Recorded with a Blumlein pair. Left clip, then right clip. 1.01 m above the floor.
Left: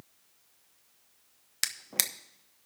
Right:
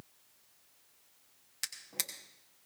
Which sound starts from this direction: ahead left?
A drawer, at 1.6 s.